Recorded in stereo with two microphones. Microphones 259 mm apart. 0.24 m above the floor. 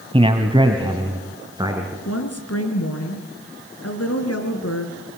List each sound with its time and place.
0.1 s a man speaking: 20° right (ahead or behind), 1.5 m; by 1.9 s 15° right (ahead or behind), 3.5 m
2.0 s a woman speaking: 70° left (ahead or behind), 3.5 m